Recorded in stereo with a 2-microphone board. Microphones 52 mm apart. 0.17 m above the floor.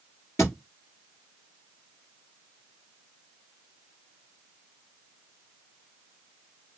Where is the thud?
60° left (ahead or behind), 1.5 m.